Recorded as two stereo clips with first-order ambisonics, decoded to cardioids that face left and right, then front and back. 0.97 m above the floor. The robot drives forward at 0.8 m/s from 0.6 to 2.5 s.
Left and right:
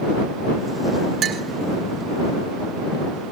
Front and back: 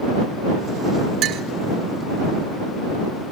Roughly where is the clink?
Behind right.